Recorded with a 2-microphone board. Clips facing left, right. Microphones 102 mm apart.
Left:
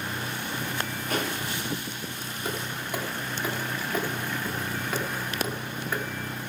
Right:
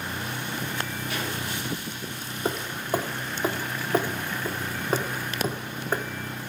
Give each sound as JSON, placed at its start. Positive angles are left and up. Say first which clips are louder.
{"t": 1.1, "sound": "a pop", "louder": "left 6 dB", "side_deg": 45, "distance_m": 4.5}
{"t": 2.5, "sound": "hammering", "louder": "right 5 dB", "side_deg": -35, "distance_m": 1.1}